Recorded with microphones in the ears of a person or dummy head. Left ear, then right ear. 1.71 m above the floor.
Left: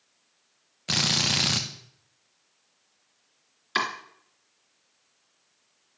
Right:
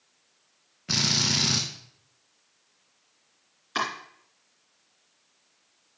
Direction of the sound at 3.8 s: 30° left (ahead or behind).